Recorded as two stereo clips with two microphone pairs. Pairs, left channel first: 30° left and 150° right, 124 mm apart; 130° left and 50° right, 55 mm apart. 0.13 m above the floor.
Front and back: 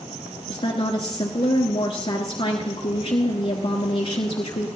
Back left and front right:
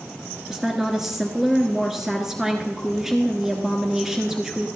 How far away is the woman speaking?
About 1.4 m.